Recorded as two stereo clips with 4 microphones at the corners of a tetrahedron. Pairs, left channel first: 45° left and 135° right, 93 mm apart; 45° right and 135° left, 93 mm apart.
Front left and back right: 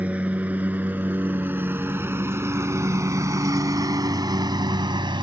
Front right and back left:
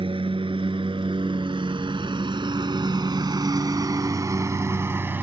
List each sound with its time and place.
0.0 s a lawn mower: 150° left; by 5.2 s 160° right